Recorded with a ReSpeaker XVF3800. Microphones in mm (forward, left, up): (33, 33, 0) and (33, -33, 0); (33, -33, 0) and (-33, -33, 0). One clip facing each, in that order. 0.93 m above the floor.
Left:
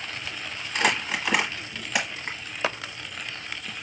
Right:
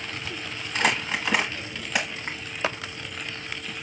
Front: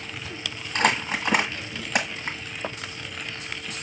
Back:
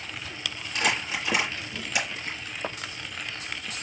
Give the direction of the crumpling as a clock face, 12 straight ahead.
12 o'clock.